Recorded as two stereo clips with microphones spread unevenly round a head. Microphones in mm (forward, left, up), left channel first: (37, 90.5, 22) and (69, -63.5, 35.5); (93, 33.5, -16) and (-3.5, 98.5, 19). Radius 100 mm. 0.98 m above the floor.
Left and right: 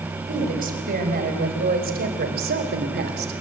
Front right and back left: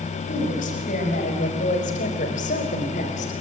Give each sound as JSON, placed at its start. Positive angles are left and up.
{"t": 0.3, "sound": "a woman speaking", "azimuth_deg": -50, "distance_m": 6.0}